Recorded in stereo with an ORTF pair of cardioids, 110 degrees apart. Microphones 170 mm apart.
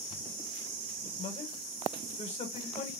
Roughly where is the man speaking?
Ahead left.